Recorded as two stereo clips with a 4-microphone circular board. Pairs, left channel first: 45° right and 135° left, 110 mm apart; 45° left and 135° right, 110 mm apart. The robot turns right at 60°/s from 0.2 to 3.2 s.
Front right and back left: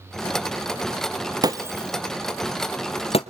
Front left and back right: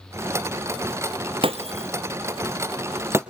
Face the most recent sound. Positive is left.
turn(degrees=-65)